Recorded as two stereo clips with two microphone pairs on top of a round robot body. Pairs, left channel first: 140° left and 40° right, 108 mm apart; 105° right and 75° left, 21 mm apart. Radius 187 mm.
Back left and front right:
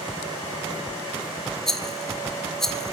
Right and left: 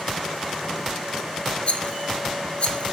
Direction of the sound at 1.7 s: 130° right.